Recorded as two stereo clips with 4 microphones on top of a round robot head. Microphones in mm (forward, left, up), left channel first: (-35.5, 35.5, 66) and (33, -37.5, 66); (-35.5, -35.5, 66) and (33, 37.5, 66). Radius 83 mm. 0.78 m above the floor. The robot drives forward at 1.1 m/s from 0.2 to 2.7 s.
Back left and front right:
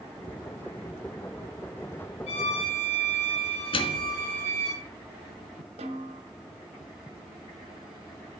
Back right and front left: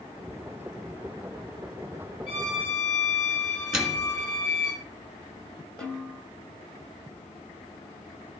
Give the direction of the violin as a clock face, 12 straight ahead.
7 o'clock.